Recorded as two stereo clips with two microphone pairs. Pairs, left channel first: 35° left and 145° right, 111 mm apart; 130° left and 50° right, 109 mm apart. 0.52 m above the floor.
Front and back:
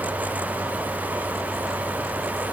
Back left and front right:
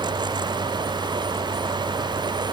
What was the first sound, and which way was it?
Only background noise.